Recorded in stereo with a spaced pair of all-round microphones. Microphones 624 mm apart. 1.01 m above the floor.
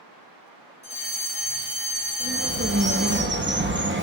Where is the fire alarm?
45° right (ahead or behind), 5.5 m.